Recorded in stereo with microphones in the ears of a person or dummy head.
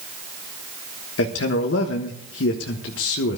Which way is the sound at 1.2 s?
65° left (ahead or behind).